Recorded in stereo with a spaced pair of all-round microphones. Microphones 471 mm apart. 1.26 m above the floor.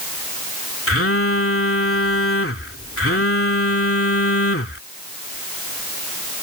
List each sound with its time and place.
0.9 s a phone buzzing: 30° left (ahead or behind)